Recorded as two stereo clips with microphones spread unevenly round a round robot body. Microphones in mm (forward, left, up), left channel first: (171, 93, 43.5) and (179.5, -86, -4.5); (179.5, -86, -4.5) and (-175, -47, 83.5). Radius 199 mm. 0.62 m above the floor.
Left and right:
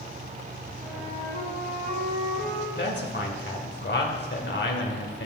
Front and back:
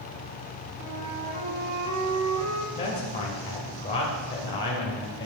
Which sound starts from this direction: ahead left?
A man speaking, at 2.8 s.